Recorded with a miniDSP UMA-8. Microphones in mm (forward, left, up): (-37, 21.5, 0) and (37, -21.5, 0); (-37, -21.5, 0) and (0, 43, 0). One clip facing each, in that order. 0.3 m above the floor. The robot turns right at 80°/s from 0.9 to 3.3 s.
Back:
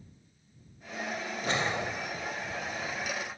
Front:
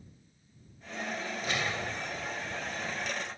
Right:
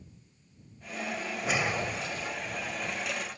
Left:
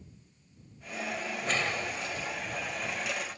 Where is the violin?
No violin in this recording.